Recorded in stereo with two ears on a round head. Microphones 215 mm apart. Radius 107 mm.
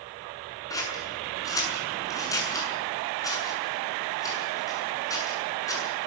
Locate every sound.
0.7 s scissors: 15° left (ahead or behind), 7 m